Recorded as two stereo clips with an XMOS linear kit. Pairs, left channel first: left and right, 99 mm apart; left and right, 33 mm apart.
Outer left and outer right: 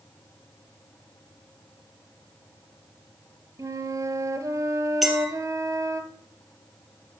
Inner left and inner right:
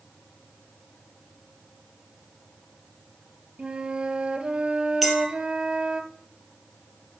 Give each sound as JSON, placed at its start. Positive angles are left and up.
{"t": 3.6, "sound": "a flute", "side_deg": -35, "distance_m": 0.8}
{"t": 5.0, "sound": "a clink", "side_deg": 0, "distance_m": 2.0}